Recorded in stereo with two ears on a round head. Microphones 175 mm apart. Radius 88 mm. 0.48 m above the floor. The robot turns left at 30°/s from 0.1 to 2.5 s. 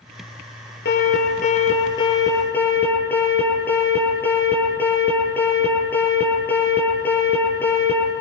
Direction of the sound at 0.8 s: 60° left.